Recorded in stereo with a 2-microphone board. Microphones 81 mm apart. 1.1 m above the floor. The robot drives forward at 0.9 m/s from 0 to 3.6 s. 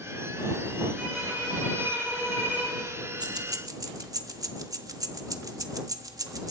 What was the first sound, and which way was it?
A violin, 15° right (ahead or behind).